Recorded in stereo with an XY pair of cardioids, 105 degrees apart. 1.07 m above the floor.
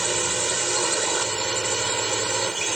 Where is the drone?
15° right.